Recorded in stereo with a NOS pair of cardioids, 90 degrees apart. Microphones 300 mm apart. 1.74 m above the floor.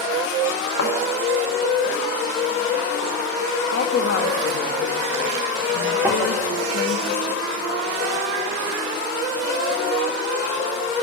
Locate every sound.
0.8 s a thud: 55° left, 3.5 m
3.7 s a woman speaking: 55° left, 2.5 m
6.0 s tapping: 10° right, 4 m